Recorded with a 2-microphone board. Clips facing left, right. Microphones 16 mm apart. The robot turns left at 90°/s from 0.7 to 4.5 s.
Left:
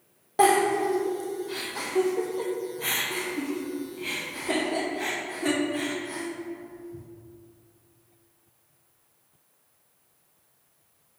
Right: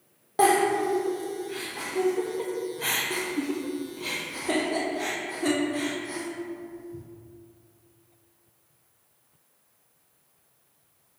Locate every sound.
0.4 s a giggle: centre (ahead or behind), 1.4 m; by 7.0 s 15° right (ahead or behind), 1.4 m